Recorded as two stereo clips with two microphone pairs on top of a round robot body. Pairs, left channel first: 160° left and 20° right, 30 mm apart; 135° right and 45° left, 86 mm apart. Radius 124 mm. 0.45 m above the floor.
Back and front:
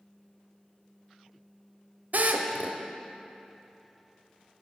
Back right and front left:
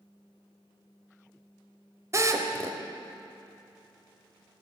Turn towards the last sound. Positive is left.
turn(degrees=0)